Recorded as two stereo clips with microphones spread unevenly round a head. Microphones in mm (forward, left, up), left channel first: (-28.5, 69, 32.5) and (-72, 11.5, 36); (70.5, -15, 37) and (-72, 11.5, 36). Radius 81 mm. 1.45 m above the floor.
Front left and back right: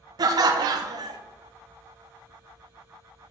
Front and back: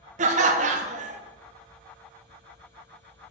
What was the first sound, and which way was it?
Laughter, 150° right.